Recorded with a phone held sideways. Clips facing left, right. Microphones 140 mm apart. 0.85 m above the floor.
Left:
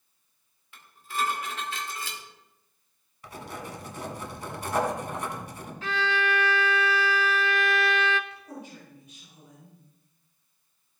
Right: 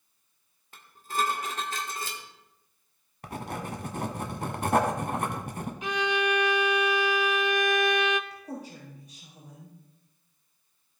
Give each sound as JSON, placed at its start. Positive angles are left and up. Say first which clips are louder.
{"t": 0.7, "sound": "dishes clattering", "louder": "right 2 dB", "side_deg": -45, "distance_m": 1.8}
{"t": 3.2, "sound": "writing", "louder": "right 3 dB", "side_deg": -60, "distance_m": 1.3}
{"t": 5.8, "sound": "a violin", "louder": "right 1 dB", "side_deg": -20, "distance_m": 0.5}
{"t": 8.3, "sound": "a woman speaking", "louder": "right 3 dB", "side_deg": -40, "distance_m": 5.0}